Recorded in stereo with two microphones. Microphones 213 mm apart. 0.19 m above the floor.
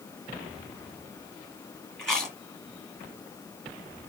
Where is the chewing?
Centre (ahead or behind), 1.7 m.